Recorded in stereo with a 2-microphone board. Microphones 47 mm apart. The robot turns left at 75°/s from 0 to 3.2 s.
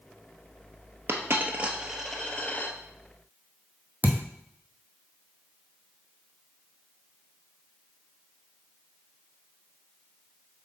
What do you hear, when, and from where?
1.1 s a dropped coin: 65° right (ahead or behind), 1.1 m; by 2.8 s 45° left (ahead or behind), 1.1 m
4.0 s a thud: 40° right (ahead or behind), 1.1 m